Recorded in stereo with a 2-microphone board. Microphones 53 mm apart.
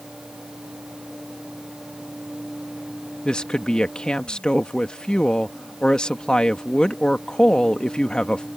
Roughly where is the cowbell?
I don't hear a cowbell.